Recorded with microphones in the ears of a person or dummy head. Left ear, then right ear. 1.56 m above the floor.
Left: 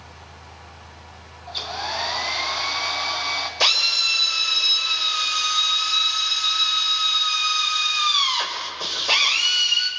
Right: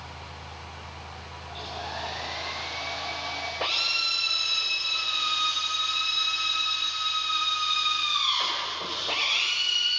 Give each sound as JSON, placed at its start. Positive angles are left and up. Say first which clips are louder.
{"t": 1.5, "sound": "a hair dryer", "louder": "left 9 dB", "side_deg": 60, "distance_m": 3.0}
{"t": 3.6, "sound": "a drill", "louder": "left 8 dB", "side_deg": 80, "distance_m": 6.0}